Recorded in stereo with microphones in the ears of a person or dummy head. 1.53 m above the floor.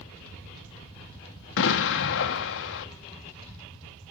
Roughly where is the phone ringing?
I don't hear a phone ringing.